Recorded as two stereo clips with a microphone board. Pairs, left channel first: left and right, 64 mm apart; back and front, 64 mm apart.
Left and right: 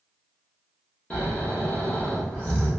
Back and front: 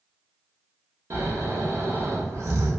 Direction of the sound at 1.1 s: 30° left.